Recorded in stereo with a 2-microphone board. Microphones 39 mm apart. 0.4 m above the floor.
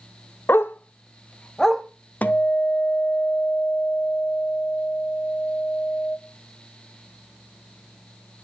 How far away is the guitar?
About 1.2 m.